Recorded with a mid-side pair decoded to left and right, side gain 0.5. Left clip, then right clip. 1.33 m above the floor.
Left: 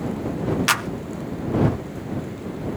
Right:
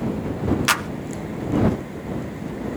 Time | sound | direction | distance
0.7 | a clap | straight ahead | ?